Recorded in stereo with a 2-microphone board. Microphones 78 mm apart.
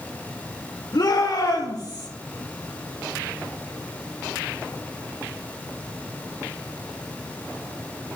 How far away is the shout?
About 3 m.